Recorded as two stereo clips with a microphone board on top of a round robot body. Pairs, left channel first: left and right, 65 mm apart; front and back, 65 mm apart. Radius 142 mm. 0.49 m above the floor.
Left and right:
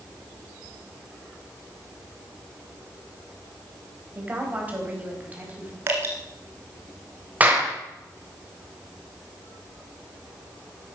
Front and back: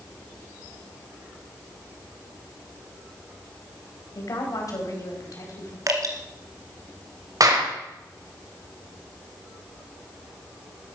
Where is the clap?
155° right, 3 m.